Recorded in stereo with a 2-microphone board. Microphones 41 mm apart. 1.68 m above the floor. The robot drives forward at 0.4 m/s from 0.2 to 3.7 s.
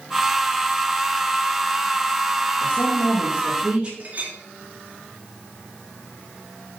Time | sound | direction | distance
2.6 | a woman speaking | 25° right (ahead or behind) | 3 m
4.0 | a clink | 40° right (ahead or behind) | 2.5 m